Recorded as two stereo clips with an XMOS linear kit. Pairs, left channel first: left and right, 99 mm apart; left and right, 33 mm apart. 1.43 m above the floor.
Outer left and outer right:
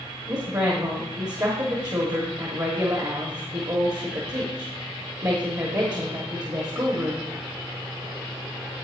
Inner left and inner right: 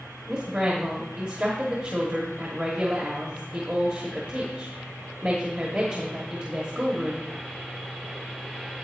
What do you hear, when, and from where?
0.3 s a woman speaking: 45° right (ahead or behind), 1.4 m